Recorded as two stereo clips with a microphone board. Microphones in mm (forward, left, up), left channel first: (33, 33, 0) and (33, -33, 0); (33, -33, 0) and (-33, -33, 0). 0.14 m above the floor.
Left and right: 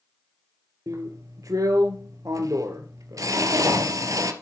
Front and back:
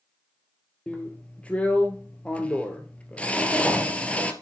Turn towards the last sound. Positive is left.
turn(degrees=-70)